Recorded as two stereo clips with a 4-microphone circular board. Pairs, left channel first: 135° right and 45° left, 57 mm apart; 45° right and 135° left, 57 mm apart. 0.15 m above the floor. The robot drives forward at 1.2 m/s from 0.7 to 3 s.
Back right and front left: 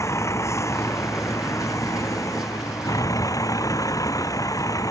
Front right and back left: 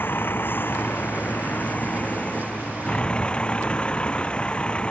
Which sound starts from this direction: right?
A vehicle, at 0.0 s.